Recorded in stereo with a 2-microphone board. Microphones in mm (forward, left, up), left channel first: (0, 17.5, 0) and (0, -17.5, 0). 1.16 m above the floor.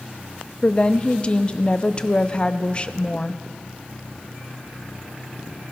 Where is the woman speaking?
30° left (ahead or behind), 0.6 m.